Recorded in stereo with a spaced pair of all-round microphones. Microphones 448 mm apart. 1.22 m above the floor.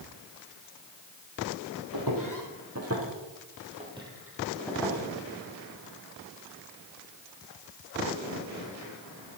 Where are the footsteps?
45° right (ahead or behind), 3 m; by 5.0 s 5° left (ahead or behind), 3.5 m.